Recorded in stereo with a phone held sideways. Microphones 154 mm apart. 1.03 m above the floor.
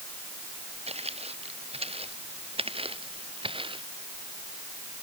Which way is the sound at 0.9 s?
40° right (ahead or behind).